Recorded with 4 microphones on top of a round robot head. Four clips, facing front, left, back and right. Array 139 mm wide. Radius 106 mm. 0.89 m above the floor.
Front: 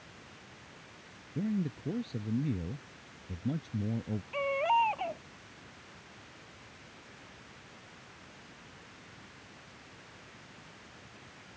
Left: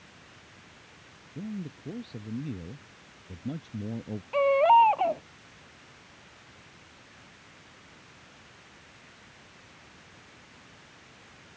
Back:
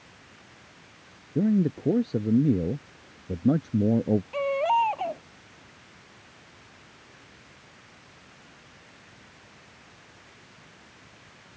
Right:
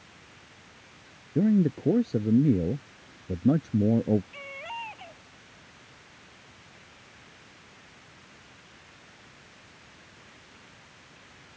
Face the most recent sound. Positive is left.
turn(degrees=110)